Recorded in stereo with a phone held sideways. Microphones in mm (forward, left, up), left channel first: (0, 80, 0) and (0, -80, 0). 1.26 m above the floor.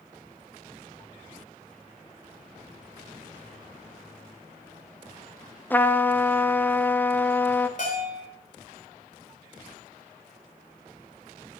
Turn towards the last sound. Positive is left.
turn(degrees=55)  # may be behind; listen again after turning